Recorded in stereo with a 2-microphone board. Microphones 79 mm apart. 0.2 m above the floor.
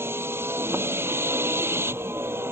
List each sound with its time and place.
0.0 s a vehicle: 30° right (ahead or behind)